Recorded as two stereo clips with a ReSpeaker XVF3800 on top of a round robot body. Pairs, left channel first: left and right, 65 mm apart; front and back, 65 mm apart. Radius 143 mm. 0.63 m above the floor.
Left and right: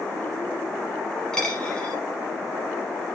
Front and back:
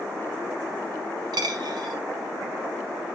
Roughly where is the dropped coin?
Behind.